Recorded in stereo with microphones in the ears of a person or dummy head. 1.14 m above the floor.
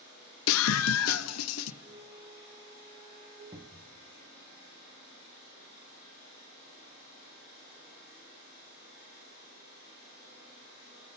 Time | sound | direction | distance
0.5 | a scream | 70° left (ahead or behind) | 0.7 m
1.8 | a flute | 65° right (ahead or behind) | 8 m
3.5 | a cupboard door | 20° right (ahead or behind) | 1.4 m